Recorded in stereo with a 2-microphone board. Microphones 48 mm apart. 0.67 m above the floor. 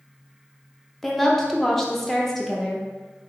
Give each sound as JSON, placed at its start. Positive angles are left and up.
{"t": 1.0, "sound": "a woman speaking", "side_deg": 5, "distance_m": 0.5}